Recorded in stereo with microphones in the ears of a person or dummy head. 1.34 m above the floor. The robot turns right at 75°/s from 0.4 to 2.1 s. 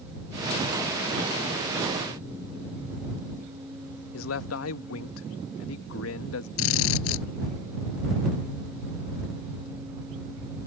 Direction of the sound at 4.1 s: 80° left.